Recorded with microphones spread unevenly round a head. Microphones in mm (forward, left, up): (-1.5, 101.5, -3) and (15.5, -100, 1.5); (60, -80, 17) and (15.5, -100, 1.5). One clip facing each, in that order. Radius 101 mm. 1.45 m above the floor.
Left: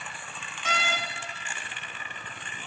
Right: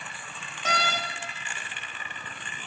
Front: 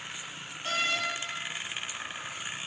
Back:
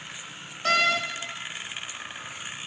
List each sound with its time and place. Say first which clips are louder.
0.7 s a door slam: right 2 dB, back 8 dB; 140° right, 1.1 m